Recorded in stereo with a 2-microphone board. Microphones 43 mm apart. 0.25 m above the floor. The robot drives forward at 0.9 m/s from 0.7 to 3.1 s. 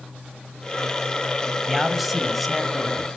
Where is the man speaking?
Centre (ahead or behind), 1.1 m.